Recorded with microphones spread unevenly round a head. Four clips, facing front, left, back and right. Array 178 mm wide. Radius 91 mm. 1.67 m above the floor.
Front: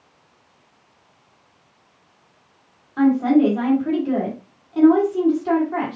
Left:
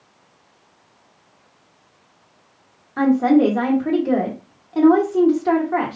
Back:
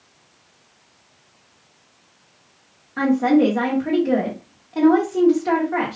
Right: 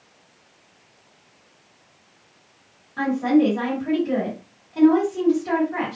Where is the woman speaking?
115° left, 1.9 m.